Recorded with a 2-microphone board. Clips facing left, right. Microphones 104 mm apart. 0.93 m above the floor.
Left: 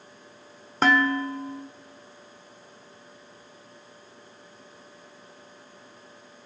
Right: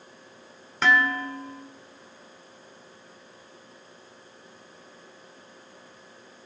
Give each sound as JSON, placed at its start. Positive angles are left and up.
{"t": 0.8, "sound": "dishes clattering", "side_deg": 40, "distance_m": 1.7}